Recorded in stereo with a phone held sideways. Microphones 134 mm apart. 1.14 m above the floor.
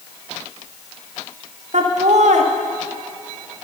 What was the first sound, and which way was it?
Laughter, 65° right (ahead or behind).